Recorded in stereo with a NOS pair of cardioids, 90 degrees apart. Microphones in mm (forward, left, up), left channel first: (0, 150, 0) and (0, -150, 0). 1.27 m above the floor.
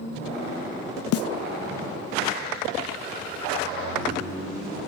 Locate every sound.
1.1 s a snare drum: 60° left, 0.6 m